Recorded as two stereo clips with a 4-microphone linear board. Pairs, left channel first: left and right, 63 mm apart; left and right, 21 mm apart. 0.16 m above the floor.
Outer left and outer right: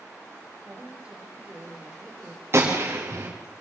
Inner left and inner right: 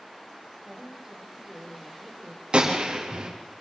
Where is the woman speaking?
20° right (ahead or behind), 8 m.